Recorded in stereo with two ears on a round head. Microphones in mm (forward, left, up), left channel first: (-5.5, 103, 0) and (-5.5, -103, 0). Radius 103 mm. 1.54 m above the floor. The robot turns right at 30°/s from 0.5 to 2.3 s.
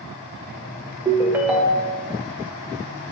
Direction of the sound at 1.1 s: 15° right (ahead or behind).